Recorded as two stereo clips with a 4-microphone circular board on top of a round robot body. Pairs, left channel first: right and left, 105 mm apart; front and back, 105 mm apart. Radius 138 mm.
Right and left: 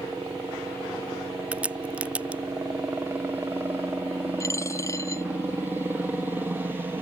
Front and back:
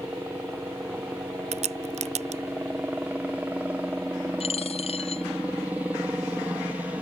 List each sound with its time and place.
0.0 s a helicopter: 125° left
1.5 s a crack: 170° left
4.4 s a dropped coin: 25° right